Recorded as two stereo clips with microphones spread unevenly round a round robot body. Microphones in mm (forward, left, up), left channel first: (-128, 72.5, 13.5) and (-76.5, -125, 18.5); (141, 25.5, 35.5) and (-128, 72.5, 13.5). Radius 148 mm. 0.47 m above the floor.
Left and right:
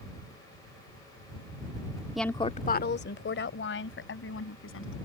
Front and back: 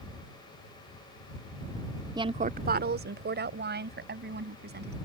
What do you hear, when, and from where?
2.1 s a woman speaking: 160° right; by 5.0 s 115° left